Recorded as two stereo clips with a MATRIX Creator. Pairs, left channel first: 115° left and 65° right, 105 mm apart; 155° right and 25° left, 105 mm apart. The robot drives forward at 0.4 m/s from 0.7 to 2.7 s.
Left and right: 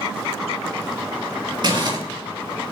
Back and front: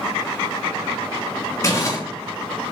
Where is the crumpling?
100° right, 3 m; by 2.0 s 105° right, 3 m.